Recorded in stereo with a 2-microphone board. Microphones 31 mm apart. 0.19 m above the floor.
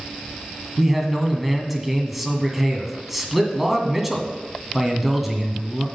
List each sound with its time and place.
0.8 s a man speaking: 5° right (ahead or behind), 1.8 m